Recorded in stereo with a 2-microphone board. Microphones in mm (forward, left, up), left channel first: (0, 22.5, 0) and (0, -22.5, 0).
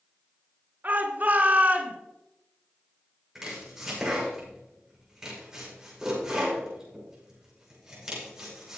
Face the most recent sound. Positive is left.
turn(degrees=-15)  # may be behind; listen again after turning